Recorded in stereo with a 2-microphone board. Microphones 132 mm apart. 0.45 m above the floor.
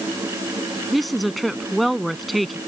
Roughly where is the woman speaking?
Centre.